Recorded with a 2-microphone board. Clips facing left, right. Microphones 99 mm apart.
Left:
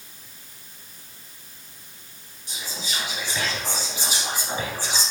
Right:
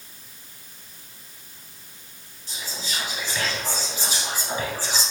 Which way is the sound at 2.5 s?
15° left (ahead or behind).